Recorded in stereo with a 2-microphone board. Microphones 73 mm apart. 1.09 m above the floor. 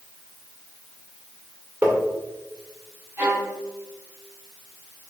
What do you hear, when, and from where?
1.8 s tapping: 25° right (ahead or behind), 1.8 m
3.2 s a violin: 25° right (ahead or behind), 2.5 m